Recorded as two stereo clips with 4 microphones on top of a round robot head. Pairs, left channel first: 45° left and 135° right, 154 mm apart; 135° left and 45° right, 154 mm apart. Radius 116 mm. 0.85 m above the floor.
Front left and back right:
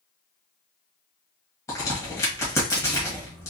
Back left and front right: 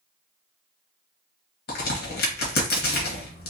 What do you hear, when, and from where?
1.7 s a crack: 115° left, 1.4 m